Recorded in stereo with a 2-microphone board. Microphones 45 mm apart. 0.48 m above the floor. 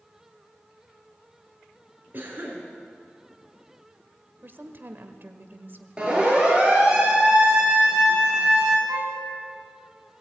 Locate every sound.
2.1 s a cough: 40° right (ahead or behind), 6 m
4.4 s a woman speaking: 45° right (ahead or behind), 1.6 m
6.0 s a siren: 20° right (ahead or behind), 7 m
8.9 s a violin: 65° right (ahead or behind), 4.5 m